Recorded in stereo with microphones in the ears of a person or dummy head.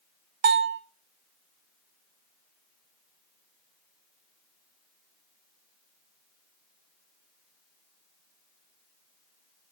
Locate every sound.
0.4 s a bell: 25° right (ahead or behind), 0.7 m